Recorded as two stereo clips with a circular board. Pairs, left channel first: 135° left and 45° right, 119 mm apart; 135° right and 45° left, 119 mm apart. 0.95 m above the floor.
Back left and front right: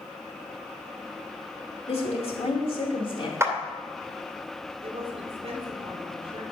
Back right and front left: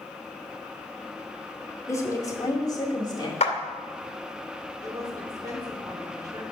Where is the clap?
110° right, 2 m.